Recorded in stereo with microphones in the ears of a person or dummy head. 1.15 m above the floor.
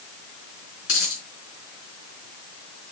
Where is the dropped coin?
80° left, 4 m.